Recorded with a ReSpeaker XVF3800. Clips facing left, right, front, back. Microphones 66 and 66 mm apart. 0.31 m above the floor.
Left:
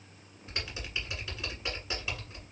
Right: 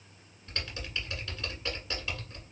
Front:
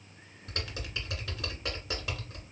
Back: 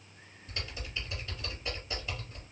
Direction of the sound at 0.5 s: 15° left.